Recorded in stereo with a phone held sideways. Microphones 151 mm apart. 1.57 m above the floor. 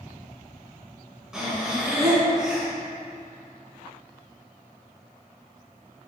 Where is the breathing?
5° right (ahead or behind), 2.5 m.